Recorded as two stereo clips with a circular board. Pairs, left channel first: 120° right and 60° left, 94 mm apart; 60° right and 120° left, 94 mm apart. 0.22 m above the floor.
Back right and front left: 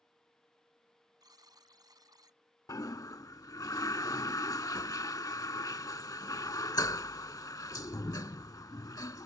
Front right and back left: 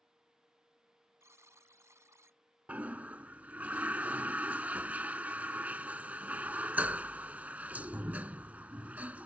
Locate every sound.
1.2 s a buzzer: 75° left
2.7 s a toilet flushing: 165° right